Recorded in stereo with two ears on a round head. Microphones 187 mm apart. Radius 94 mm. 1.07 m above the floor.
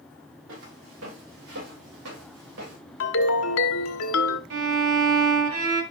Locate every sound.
0.5 s footsteps: 70° right (ahead or behind), 9 m; by 2.8 s 80° right, 8 m
3.0 s a ringtone: 70° left (ahead or behind), 1.4 m
4.5 s a violin: 75° right (ahead or behind), 3 m